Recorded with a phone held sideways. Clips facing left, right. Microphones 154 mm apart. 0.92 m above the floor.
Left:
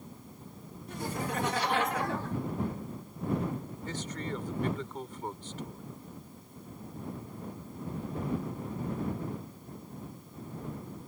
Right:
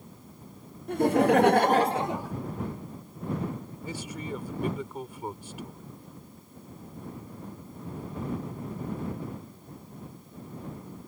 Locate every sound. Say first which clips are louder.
0.9 s laughter: right 14 dB; 60° right (ahead or behind); by 2.4 s 10° right (ahead or behind)
3.9 s a man speaking: right 1 dB; 10° right (ahead or behind)